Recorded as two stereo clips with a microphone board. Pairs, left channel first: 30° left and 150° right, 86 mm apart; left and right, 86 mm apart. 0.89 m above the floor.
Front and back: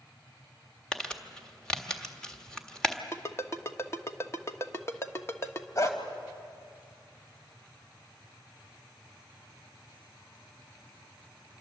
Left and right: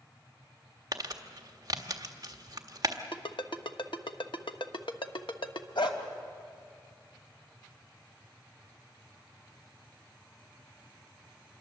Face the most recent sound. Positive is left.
turn(degrees=80)